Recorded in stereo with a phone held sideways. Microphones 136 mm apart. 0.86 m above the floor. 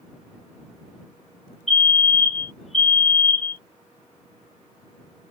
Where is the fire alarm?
55° left (ahead or behind).